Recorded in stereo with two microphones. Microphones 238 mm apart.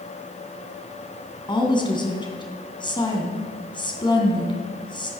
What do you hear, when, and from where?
1.5 s a woman speaking: 20° left (ahead or behind), 2.5 m